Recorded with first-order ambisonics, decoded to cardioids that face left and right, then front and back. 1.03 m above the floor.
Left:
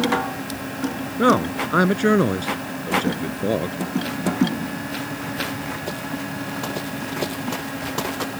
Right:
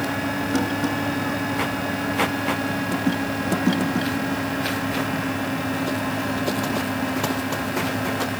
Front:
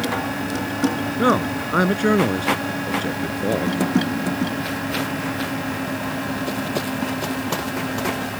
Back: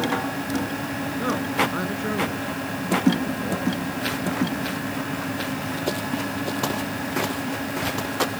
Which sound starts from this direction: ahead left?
A man speaking, at 1.2 s.